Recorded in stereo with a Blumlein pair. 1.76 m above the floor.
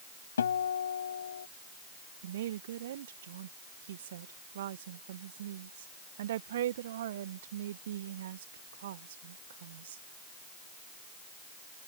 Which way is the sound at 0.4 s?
65° left.